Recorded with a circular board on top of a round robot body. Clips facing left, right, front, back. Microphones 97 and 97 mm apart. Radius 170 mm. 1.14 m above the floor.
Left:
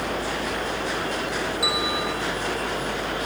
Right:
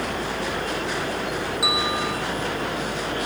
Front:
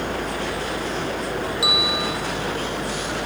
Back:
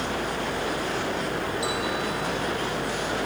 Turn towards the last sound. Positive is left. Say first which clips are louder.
# right 1 dB, front 3 dB
turn(degrees=0)